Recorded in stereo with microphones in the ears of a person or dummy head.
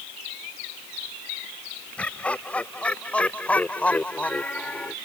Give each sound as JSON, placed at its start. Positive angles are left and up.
{"t": 2.0, "sound": "laughter", "side_deg": 5}